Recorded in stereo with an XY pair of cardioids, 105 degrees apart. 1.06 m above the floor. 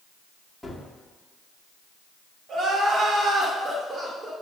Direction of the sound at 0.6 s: 5° left.